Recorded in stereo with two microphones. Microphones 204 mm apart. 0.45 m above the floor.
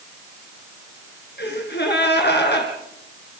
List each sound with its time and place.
1.4 s a gasp: 65° left (ahead or behind), 4 m